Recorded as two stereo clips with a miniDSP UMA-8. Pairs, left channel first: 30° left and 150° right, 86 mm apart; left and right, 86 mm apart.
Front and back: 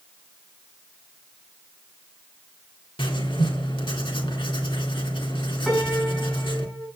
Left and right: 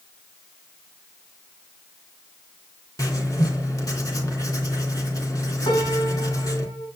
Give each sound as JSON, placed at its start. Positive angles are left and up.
{"t": 3.0, "sound": "writing", "azimuth_deg": 45, "distance_m": 3.5}
{"t": 5.7, "sound": "a piano", "azimuth_deg": 115, "distance_m": 7.0}